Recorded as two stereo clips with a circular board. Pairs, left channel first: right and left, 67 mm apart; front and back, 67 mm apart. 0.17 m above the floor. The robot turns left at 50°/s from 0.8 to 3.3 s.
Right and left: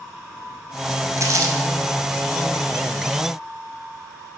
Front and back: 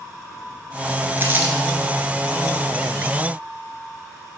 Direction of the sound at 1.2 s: 125° left.